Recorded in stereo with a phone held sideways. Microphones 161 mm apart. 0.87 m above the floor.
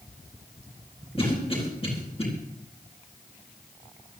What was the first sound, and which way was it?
A cough, 35° left (ahead or behind).